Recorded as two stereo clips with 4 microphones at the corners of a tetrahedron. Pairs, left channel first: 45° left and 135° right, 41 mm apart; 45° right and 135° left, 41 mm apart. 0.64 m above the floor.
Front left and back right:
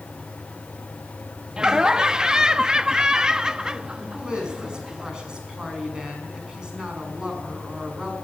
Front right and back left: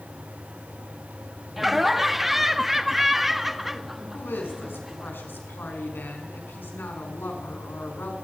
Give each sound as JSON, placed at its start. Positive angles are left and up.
{"t": 1.6, "sound": "laughter", "azimuth_deg": -150, "distance_m": 0.7}
{"t": 4.1, "sound": "a woman speaking", "azimuth_deg": -60, "distance_m": 6.5}